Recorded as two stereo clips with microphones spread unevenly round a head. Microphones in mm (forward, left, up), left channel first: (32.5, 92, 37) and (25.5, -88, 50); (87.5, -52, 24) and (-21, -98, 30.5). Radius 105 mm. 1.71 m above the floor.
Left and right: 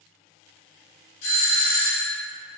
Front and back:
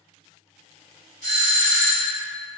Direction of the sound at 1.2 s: 90° left.